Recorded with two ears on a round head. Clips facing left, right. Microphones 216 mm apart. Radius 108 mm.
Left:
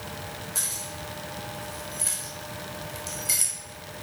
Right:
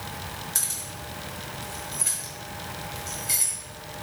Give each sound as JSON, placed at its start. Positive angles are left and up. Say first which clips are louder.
{"t": 0.6, "sound": "keys jangling", "louder": "left 2 dB", "side_deg": -25, "distance_m": 2.0}